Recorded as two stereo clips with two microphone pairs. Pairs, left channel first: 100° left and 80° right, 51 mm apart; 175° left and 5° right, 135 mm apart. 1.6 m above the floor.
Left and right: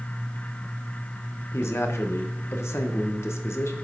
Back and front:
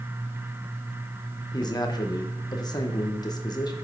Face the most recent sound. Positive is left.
turn(degrees=115)